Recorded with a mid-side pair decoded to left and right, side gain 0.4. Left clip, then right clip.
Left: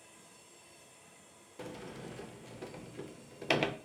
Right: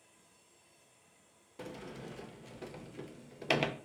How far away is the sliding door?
About 0.5 m.